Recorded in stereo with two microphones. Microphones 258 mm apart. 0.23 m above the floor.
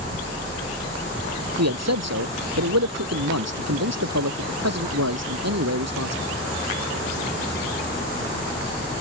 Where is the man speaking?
80° right.